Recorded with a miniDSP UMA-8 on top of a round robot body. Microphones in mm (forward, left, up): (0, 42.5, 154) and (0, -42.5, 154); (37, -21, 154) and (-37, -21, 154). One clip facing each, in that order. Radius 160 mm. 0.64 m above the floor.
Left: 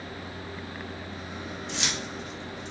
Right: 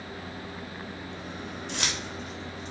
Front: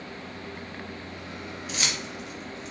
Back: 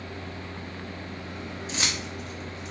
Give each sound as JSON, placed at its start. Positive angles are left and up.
{"t": 1.7, "sound": "keys jangling", "azimuth_deg": -120, "distance_m": 1.0}